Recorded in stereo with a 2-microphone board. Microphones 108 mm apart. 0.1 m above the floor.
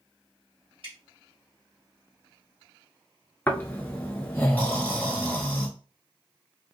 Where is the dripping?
70° right (ahead or behind), 2.5 m.